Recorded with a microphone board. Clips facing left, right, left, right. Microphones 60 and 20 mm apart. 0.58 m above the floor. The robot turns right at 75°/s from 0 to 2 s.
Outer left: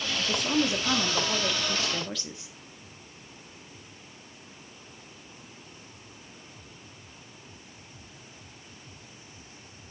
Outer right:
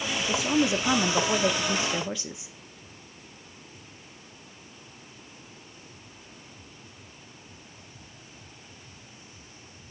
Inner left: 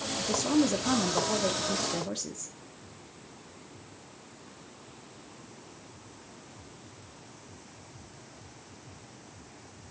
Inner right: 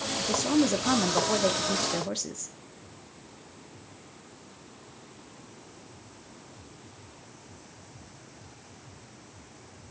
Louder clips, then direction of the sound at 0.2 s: Outer right 2 dB, inner right 1 dB; centre (ahead or behind).